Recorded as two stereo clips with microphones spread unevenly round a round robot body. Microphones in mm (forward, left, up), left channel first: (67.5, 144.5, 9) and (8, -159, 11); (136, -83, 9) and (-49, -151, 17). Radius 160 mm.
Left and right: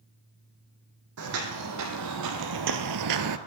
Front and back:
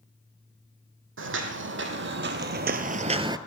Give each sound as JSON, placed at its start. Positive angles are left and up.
{"t": 1.2, "sound": "footsteps", "azimuth_deg": -150, "distance_m": 1.6}